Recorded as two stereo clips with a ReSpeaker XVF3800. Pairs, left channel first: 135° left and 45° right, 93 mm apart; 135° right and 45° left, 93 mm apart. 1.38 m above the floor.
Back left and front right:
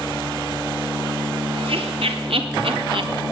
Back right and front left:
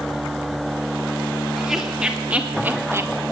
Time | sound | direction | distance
1.6 | laughter | 40° right | 3 m